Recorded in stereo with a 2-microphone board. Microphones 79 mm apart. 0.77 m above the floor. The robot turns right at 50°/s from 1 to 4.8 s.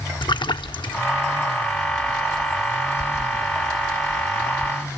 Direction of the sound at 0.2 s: 80° left.